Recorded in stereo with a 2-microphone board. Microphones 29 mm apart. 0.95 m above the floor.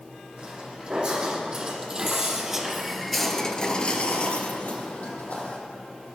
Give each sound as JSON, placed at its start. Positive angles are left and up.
{"t": 0.4, "sound": "footsteps", "side_deg": -30, "distance_m": 3.0}